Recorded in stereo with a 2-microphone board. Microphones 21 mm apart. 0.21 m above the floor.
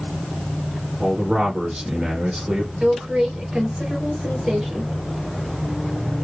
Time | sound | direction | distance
1.0 | a man speaking | 65° right (ahead or behind) | 2 m
2.8 | a woman speaking | 65° right (ahead or behind) | 3 m